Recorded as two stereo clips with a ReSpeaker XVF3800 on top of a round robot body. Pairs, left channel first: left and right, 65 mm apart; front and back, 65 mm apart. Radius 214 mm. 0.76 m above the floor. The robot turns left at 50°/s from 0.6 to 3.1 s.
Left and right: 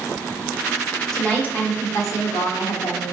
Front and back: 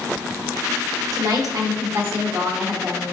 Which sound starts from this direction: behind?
A woman speaking, at 1.1 s.